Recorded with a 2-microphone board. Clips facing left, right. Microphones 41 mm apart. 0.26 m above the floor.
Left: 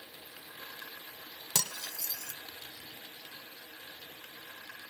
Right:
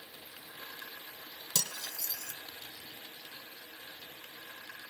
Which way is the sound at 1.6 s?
65° left (ahead or behind).